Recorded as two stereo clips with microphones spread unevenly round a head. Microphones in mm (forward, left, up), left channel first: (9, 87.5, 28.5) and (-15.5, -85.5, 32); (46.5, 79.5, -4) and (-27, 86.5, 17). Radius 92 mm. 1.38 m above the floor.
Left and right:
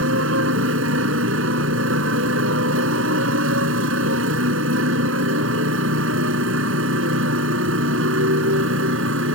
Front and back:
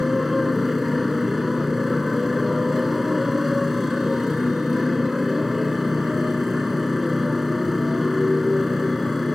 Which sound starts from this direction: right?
A motorcycle, at 0.0 s.